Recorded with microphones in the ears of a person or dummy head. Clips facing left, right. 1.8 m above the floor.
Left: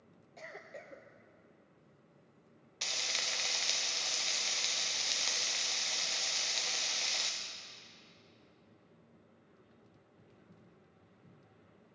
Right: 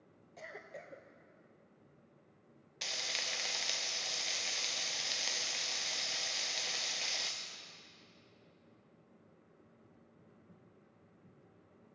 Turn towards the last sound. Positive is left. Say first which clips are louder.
# left 1 dB
turn(degrees=0)  # may be behind; listen again after turning